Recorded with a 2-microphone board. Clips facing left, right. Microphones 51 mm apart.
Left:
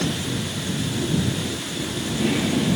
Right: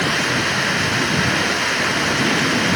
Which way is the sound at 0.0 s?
60° right (ahead or behind).